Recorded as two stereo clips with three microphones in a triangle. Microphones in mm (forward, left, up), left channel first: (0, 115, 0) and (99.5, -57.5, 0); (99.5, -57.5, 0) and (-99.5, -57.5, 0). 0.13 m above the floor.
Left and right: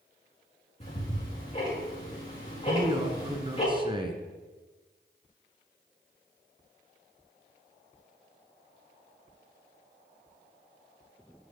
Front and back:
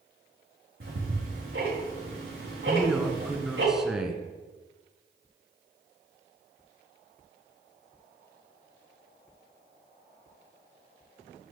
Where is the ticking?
175° left, 4 m.